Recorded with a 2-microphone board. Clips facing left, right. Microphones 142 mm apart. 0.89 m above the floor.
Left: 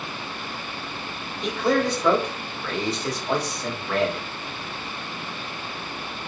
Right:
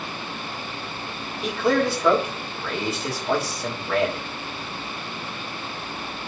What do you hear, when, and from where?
1.4 s a man speaking: 5° right (ahead or behind), 2 m